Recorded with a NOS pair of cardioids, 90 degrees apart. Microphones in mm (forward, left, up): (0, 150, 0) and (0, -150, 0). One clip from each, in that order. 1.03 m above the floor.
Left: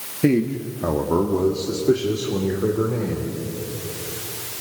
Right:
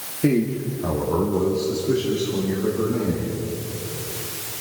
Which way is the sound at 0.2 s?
40° left.